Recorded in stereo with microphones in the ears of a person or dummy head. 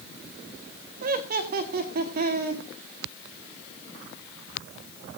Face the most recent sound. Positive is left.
turn(degrees=-50)  # may be behind; listen again after turning